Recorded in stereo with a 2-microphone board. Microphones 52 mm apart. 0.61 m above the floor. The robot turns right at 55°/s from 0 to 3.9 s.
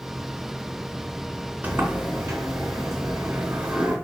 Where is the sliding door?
145° right, 2.5 m; by 4.0 s 20° right, 2.5 m.